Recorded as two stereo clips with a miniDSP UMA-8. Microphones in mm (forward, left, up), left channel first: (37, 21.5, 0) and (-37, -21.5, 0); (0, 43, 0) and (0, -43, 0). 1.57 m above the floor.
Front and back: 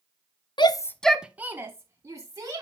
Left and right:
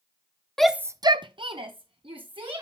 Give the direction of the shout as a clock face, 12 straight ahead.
12 o'clock.